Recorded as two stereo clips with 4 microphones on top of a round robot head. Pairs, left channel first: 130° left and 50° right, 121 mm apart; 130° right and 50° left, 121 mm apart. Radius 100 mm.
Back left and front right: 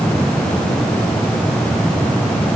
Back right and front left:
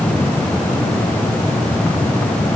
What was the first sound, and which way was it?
Only background noise.